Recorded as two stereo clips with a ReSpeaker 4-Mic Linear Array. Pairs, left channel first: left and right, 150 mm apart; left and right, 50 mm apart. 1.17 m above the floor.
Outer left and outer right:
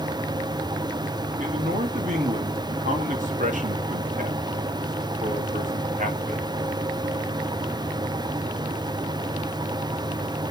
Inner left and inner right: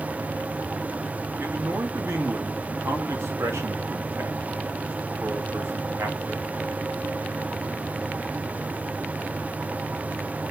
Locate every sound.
1.4 s a man speaking: 60° right (ahead or behind), 1.9 m